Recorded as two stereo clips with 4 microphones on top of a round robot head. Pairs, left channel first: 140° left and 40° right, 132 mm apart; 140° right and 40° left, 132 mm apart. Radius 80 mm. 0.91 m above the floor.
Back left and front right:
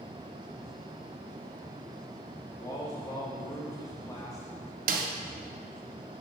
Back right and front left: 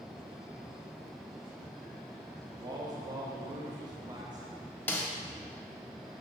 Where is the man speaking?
85° left, 0.9 m.